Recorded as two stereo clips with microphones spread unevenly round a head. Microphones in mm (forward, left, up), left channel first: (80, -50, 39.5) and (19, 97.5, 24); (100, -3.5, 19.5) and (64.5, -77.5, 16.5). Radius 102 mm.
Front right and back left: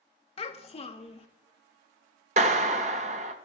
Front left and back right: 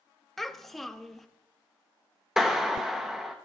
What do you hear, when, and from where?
0.4 s a child speaking: 25° right, 1.2 m
2.4 s a clap: 160° left, 0.6 m